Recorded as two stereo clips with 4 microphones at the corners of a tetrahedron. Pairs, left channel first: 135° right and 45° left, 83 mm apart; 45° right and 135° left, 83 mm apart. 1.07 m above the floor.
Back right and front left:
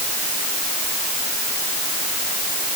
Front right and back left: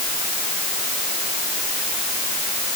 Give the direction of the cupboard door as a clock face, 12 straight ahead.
No cupboard door in this recording.